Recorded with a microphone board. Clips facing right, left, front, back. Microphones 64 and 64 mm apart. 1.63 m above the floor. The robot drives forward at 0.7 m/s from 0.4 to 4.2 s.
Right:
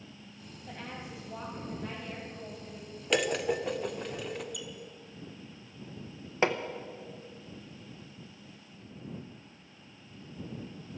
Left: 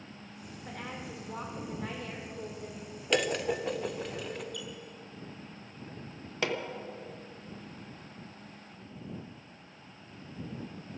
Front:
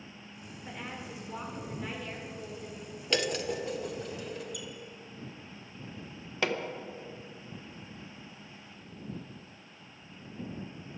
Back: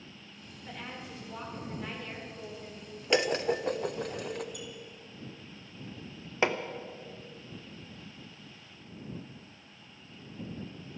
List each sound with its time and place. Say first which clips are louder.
0.7 s a woman speaking: left 1 dB, front 1 dB; 70° left, 4.5 m; by 2.9 s 95° left, 4 m
3.1 s dishes clattering: right 1 dB, back 4 dB; 175° right, 0.6 m; by 4.4 s straight behind, 1.1 m
4.5 s a squeak: left 1 dB, front 1 dB; 165° right, 1.8 m
6.4 s hammering: right 4 dB, back 2 dB; 130° right, 1.0 m